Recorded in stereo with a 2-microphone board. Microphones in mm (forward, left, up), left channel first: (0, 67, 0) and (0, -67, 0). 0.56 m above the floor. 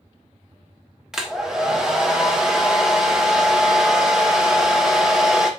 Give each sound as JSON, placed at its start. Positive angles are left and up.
{"t": 1.1, "sound": "a hair dryer", "side_deg": -5, "distance_m": 0.5}